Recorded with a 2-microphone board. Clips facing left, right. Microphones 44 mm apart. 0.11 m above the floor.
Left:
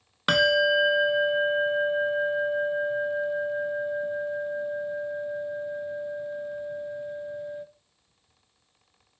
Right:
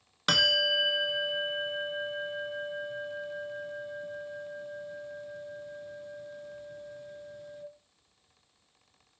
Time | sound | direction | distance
0.3 | a bell | 20° left (ahead or behind) | 0.6 m